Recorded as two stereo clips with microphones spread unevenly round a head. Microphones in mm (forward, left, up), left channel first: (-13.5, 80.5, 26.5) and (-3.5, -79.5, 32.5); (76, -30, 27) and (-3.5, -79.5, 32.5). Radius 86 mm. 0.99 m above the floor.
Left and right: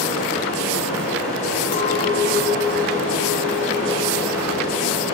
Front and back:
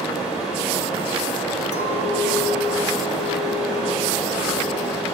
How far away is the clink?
About 0.7 m.